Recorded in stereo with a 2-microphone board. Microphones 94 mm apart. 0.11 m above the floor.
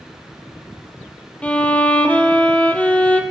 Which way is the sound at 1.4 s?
15° left (ahead or behind).